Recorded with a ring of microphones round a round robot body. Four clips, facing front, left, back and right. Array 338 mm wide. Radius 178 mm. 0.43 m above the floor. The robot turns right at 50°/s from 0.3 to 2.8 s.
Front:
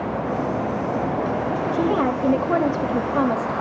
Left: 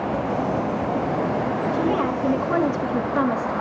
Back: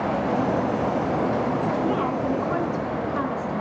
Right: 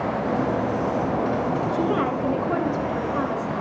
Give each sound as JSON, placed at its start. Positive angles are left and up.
{"t": 1.7, "sound": "a woman speaking", "azimuth_deg": -30, "distance_m": 3.0}